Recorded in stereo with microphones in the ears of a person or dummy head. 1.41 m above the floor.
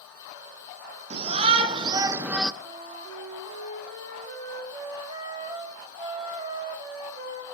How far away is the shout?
About 1.3 m.